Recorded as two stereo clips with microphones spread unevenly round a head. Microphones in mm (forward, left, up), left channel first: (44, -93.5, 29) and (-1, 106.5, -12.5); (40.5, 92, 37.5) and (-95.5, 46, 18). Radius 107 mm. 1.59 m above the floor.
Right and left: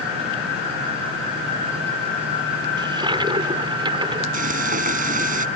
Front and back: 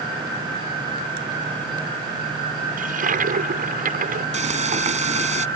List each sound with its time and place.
2.8 s a toilet flushing: 175° left
4.3 s frying: 160° left